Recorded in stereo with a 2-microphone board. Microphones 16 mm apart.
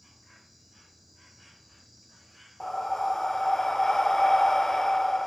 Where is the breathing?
30° left (ahead or behind), 0.5 m.